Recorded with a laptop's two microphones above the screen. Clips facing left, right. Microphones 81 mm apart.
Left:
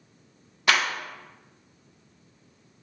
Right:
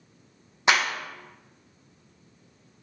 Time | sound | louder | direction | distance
0.7 | a clap | right 1 dB | 25° right (ahead or behind) | 0.5 m